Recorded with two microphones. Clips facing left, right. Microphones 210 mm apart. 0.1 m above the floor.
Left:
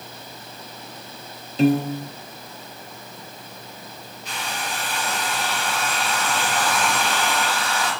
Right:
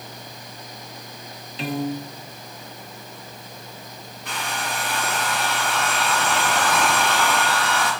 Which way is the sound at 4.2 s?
50° right (ahead or behind).